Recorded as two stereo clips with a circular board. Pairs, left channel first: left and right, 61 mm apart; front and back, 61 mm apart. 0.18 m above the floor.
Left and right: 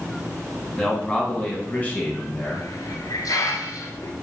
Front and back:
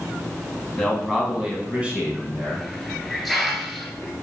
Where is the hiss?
90° left, 0.7 m.